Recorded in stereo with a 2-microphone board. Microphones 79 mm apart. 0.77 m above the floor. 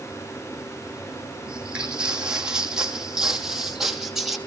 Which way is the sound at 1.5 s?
10° right (ahead or behind).